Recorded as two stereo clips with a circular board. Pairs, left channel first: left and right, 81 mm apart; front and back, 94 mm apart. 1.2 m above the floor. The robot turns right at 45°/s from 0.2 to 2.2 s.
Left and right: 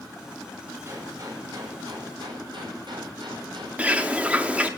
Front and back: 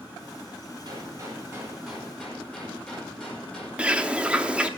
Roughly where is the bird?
Behind right.